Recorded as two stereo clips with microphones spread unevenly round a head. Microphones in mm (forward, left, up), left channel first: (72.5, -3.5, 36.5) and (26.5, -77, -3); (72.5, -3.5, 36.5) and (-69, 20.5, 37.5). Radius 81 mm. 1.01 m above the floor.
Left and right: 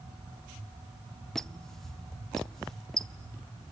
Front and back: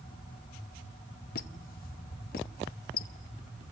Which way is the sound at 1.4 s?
30° right.